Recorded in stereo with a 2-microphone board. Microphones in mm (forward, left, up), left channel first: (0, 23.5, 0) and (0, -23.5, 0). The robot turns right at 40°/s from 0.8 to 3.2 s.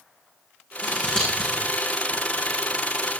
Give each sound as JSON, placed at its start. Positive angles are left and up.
{"t": 0.8, "sound": "scissors", "side_deg": 30, "distance_m": 8.5}